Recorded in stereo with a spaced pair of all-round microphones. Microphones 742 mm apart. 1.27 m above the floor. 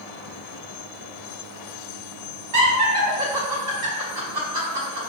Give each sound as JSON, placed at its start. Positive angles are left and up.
{"t": 2.5, "sound": "laughter", "side_deg": -65, "distance_m": 1.0}